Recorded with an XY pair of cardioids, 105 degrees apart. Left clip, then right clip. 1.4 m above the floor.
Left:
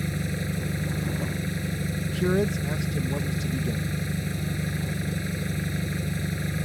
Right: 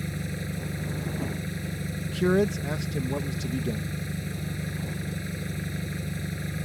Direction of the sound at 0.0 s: 25° left.